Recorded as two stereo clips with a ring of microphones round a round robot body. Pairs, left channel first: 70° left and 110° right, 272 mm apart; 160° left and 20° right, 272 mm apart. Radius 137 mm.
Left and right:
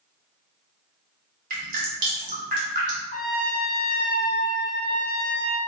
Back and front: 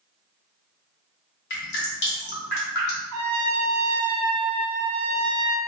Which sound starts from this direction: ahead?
A trumpet, at 3.1 s.